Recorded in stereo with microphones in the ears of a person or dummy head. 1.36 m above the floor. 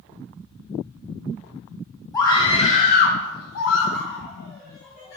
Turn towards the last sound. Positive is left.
turn(degrees=40)  # may be behind; listen again after turning